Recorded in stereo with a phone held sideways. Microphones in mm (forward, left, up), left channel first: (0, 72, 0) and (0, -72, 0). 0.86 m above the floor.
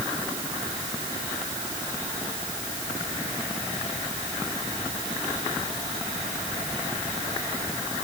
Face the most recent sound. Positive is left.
No sound to turn to.